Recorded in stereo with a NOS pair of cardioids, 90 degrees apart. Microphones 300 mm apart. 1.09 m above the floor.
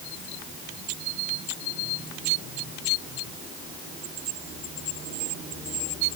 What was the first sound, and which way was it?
Only background noise.